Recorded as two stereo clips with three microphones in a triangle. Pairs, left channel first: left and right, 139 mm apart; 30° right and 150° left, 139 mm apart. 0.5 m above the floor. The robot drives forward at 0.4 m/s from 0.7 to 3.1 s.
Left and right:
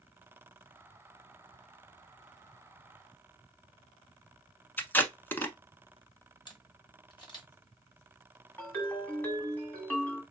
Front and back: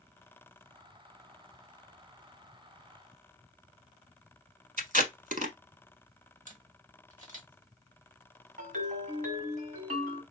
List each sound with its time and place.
4.8 s tape being pulled: 165° left, 0.9 m
6.5 s a camera shutter: 140° left, 1.3 m
8.6 s a ringtone: 170° left, 1.7 m